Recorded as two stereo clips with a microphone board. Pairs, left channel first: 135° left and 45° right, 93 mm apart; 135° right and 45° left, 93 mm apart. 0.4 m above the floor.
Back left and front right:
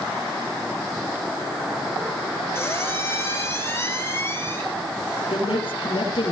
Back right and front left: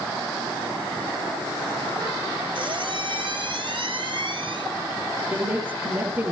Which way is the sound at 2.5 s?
75° left.